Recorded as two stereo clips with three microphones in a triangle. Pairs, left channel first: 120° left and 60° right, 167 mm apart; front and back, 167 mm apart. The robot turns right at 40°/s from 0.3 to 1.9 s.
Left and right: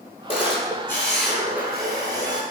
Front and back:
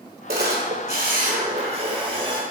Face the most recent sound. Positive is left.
turn(degrees=-125)